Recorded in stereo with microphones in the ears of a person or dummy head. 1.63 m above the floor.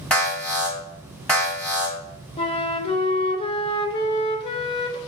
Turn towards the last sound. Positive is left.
turn(degrees=30)  # may be behind; listen again after turning